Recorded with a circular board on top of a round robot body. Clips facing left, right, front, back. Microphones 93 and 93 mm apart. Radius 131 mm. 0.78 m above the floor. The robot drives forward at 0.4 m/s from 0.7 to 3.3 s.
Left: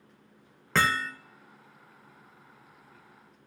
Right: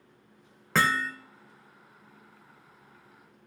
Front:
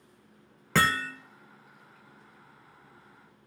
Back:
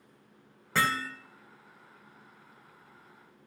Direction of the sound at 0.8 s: 5° right.